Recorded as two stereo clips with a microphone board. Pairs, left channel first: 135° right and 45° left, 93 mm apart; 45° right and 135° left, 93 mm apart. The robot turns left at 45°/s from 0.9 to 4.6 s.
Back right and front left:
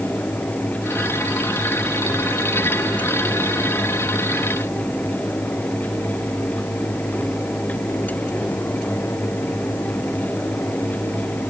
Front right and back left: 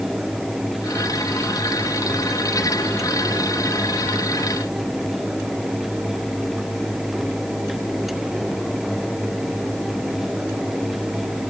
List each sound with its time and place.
Only background noise.